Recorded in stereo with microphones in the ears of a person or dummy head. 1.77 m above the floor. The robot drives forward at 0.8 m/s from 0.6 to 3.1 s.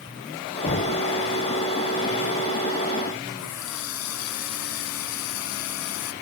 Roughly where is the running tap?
Left.